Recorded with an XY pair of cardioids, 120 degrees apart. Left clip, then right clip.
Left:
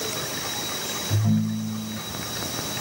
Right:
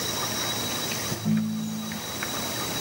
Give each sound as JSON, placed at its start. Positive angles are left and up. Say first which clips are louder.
{"t": 1.1, "sound": "a ringtone", "louder": "left 2 dB", "azimuth_deg": 40, "distance_m": 3.0}